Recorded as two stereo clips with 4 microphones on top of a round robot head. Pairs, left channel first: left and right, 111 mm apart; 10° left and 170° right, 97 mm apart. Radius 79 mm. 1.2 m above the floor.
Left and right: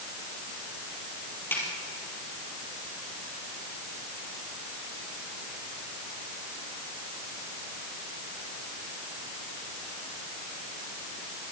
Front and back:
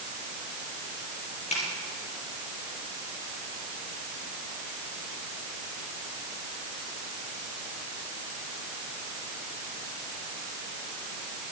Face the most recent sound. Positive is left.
turn(degrees=20)